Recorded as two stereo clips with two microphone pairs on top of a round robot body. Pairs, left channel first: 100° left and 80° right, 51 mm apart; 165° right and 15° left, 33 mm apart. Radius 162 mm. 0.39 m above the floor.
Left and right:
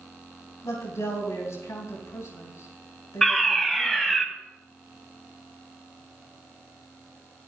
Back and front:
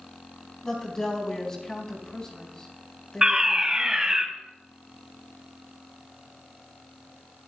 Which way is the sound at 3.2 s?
Straight ahead.